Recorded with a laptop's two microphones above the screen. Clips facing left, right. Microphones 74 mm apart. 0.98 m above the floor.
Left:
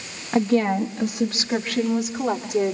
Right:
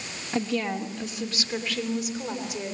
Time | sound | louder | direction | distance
0.3 | a woman speaking | left 8 dB | 35° left (ahead or behind) | 1.1 m